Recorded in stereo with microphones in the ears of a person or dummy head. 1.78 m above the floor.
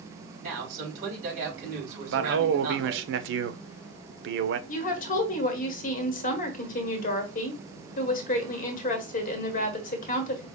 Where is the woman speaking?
55° left (ahead or behind), 1.3 m.